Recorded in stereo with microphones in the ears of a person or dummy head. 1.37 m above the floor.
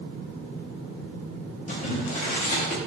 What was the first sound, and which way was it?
Boiling, 40° left (ahead or behind).